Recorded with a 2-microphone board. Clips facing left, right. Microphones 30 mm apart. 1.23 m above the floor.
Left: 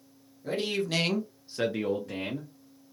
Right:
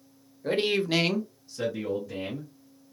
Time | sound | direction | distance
0.4 | a man speaking | 45° right (ahead or behind) | 0.8 m